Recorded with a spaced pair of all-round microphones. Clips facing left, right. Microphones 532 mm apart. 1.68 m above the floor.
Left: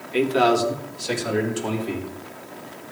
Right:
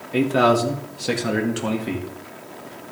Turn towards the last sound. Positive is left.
turn(degrees=-75)  # may be behind; listen again after turning